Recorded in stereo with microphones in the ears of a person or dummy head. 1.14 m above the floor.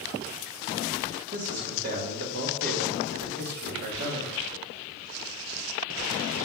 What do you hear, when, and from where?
1.3 s a man speaking: 50° right (ahead or behind), 1.3 m